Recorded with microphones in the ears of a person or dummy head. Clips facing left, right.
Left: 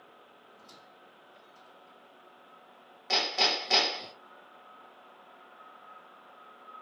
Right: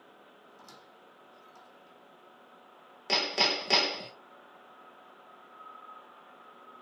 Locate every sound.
0.5 s a squeak: 70° right (ahead or behind), 1.3 m
3.1 s hammering: 40° right (ahead or behind), 0.8 m